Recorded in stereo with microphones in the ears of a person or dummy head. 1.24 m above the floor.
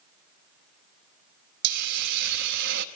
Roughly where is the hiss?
Right.